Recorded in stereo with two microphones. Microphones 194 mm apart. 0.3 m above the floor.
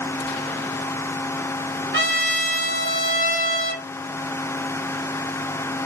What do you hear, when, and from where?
1.9 s a trumpet: 85° right, 0.6 m